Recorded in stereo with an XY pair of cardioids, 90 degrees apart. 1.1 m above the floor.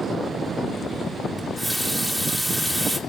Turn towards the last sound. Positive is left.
turn(degrees=0)